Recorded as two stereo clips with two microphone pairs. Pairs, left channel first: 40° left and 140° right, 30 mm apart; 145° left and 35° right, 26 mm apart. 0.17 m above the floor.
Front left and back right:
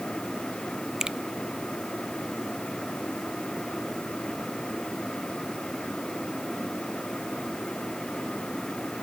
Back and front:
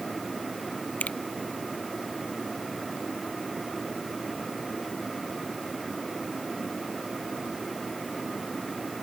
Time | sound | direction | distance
1.0 | a finger snap | 145° left | ?